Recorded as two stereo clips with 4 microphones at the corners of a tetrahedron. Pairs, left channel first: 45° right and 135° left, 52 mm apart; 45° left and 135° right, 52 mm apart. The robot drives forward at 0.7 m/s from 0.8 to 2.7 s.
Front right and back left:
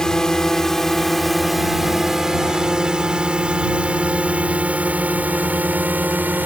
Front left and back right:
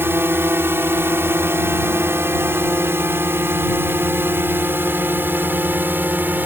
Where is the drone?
120° right; by 6.5 s 175° right.